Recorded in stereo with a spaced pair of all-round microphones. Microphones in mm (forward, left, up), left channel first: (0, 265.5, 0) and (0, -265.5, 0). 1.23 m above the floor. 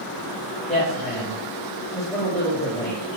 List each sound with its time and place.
0.7 s a woman speaking: 5° left (ahead or behind), 3.5 m